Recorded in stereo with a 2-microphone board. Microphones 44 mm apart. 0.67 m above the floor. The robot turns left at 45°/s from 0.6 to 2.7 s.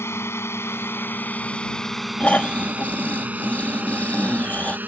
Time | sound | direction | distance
0.0 | a drone | 80° left | ?
2.2 | snoring | 35° left (ahead or behind) | ?